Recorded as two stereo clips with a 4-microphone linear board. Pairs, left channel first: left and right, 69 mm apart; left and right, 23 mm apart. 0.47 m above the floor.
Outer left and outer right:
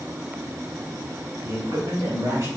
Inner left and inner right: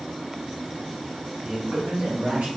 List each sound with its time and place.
1.4 s a man speaking: 50° right (ahead or behind), 1.9 m; by 2.5 s 60° right (ahead or behind), 2 m